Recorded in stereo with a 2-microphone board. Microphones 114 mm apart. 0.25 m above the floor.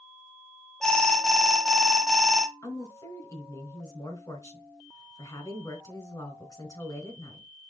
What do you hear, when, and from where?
0.8 s an alarm: 5° left (ahead or behind), 1.4 m
2.6 s a woman speaking: 30° left (ahead or behind), 3 m